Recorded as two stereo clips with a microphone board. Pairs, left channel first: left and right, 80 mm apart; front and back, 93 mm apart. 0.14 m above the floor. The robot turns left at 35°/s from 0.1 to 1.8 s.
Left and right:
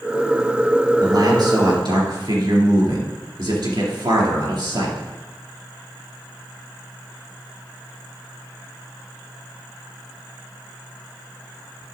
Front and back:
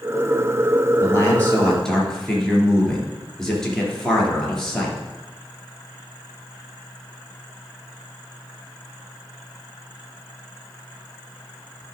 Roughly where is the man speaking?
Ahead right.